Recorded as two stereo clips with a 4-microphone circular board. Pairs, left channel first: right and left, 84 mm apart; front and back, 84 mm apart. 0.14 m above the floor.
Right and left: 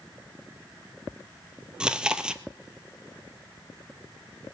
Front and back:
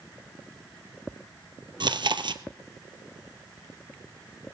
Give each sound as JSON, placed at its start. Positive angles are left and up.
{"t": 1.8, "sound": "chewing", "azimuth_deg": 170, "distance_m": 0.7}